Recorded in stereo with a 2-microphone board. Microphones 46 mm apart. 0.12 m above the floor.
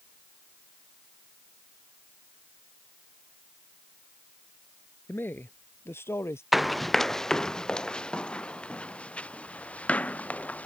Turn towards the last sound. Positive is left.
turn(degrees=30)  # may be behind; listen again after turning